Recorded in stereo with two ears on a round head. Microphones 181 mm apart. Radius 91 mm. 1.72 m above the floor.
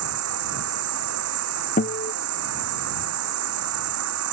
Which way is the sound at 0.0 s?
80° right.